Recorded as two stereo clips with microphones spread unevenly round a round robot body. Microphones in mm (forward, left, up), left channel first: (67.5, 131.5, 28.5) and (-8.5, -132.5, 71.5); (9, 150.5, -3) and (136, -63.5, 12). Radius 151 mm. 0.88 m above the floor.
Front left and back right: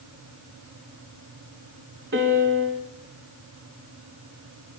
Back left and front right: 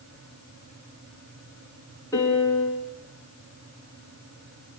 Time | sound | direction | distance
2.1 | a piano | 160° right | 3 m